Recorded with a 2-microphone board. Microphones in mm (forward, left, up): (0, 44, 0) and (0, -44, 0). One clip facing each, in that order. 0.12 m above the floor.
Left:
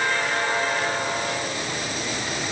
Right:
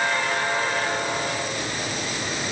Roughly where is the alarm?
No alarm in this recording.